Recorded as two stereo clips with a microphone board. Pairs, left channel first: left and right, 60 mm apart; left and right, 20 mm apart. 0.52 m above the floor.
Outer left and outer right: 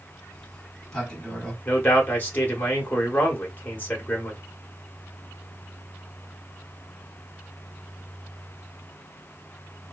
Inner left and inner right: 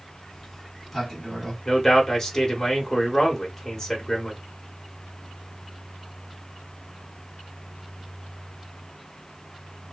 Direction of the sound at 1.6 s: 30° left (ahead or behind).